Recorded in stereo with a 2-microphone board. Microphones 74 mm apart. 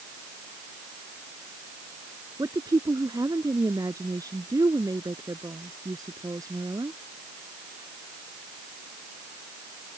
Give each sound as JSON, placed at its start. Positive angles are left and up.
{"t": 2.4, "sound": "a woman speaking", "side_deg": -55}